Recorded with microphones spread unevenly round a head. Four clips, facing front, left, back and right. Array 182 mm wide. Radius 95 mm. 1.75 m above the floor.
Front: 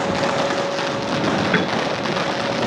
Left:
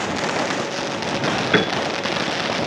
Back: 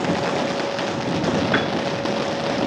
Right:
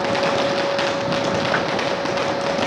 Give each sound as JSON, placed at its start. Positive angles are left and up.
{"t": 1.5, "sound": "a piano", "azimuth_deg": 110}